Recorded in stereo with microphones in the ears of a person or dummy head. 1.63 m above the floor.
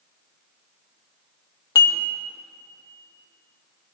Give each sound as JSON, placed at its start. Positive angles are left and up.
{"t": 1.8, "sound": "dishes clattering", "side_deg": 20, "distance_m": 1.2}